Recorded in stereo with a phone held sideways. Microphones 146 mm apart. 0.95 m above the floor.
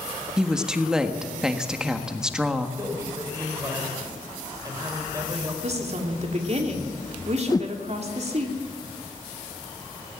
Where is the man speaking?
25° right (ahead or behind), 4.5 m.